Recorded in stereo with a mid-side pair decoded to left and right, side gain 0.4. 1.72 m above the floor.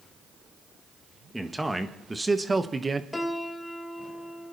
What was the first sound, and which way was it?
A man speaking, 10° right.